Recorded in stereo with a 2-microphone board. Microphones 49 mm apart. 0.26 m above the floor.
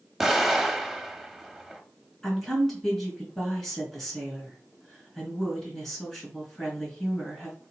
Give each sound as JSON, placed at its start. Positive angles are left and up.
{"t": 0.2, "sound": "an explosion", "side_deg": -5, "distance_m": 0.7}
{"t": 2.2, "sound": "a woman speaking", "side_deg": 5, "distance_m": 3.5}